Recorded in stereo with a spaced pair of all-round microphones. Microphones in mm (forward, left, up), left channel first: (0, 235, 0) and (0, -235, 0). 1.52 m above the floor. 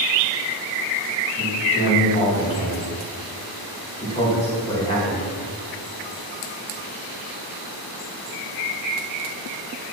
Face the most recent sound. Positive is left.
turn(degrees=10)  # may be behind; listen again after turning